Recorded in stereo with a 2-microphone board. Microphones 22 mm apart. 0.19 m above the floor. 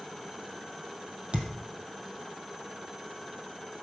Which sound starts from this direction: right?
A thud, at 1.3 s.